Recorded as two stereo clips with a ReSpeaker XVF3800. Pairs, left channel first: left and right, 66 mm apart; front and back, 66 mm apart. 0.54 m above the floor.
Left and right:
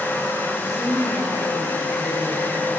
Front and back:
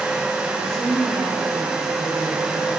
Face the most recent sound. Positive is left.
turn(degrees=-70)